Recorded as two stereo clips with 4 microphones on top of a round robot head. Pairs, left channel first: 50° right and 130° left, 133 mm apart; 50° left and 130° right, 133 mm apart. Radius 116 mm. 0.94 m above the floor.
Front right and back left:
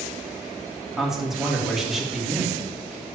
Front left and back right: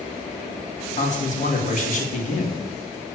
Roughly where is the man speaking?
Ahead left.